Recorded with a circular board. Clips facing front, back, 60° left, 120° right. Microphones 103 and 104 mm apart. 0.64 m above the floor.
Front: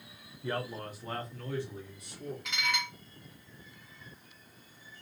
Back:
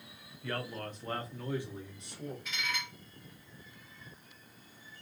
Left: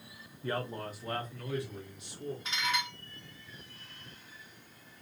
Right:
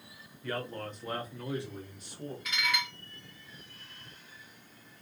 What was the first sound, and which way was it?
A man speaking, 40° left.